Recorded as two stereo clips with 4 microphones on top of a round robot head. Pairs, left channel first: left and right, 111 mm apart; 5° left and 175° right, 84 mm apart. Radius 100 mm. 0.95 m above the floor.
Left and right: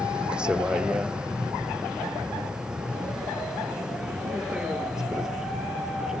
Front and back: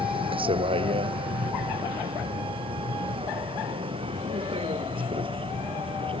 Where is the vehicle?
175° right.